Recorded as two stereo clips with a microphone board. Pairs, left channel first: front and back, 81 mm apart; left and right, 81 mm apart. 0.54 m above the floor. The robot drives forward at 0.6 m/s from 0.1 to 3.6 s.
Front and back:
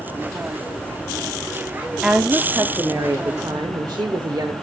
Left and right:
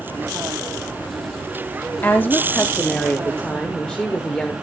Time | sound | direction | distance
2.0 | a woman speaking | 110° left | 0.6 m